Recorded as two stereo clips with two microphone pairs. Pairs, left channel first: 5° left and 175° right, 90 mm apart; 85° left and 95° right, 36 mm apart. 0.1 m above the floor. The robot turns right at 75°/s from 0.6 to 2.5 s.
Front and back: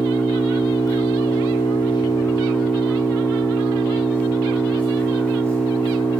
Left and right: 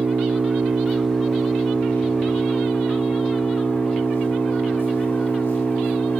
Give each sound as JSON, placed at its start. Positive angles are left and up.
{"t": 0.0, "sound": "an engine running", "azimuth_deg": -60, "distance_m": 9.0}